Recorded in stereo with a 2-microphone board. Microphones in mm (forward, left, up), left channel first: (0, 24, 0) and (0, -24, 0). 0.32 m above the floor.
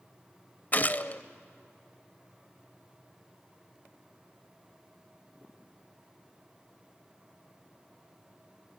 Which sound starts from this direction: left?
A gunshot, at 0.7 s.